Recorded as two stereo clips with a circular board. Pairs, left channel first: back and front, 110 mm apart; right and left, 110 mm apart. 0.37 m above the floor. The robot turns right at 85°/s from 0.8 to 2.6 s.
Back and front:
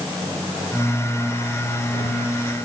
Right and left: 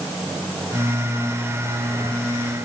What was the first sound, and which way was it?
Only background noise.